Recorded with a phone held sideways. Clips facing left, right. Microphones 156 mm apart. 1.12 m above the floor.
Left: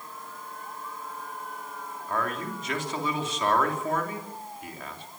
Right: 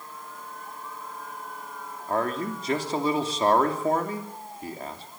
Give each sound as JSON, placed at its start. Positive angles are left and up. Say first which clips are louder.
{"t": 2.1, "sound": "a man speaking", "louder": "right 4 dB", "side_deg": -35, "distance_m": 3.0}